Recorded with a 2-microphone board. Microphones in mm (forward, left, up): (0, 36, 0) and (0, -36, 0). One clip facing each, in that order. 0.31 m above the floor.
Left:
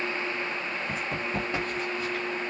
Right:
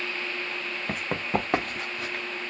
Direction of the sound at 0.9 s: 65° right (ahead or behind).